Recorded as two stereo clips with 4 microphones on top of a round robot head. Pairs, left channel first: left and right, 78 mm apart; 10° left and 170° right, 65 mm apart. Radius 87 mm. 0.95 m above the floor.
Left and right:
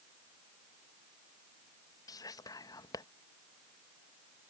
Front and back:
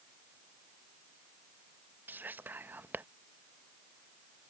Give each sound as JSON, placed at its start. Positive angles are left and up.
{"t": 2.1, "sound": "whispering", "azimuth_deg": 130}